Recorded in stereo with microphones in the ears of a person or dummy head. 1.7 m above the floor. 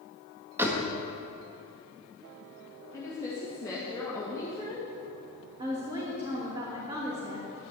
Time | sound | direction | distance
0.6 | a door slam | 15° right (ahead or behind) | 1.6 m
2.9 | a woman speaking | 10° left (ahead or behind) | 2.0 m
5.6 | a woman speaking | 30° right (ahead or behind) | 3 m